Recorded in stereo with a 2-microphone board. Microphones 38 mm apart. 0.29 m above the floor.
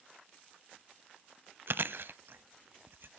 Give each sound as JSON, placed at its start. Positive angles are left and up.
{"t": 1.7, "sound": "chewing", "side_deg": -65, "distance_m": 0.5}